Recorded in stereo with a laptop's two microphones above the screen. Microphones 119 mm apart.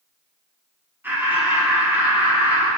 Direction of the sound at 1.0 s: 15° right (ahead or behind).